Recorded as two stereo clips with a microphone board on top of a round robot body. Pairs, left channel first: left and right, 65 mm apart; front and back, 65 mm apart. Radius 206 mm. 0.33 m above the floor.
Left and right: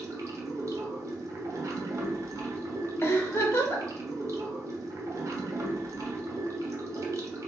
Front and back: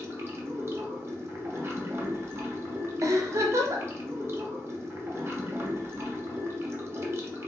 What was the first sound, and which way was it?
Running water, 130° right.